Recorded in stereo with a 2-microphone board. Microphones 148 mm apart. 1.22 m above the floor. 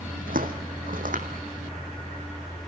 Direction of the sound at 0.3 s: 70° right (ahead or behind).